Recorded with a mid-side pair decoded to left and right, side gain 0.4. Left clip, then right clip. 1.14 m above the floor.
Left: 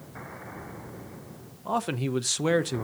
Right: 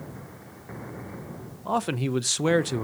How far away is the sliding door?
No sliding door in this recording.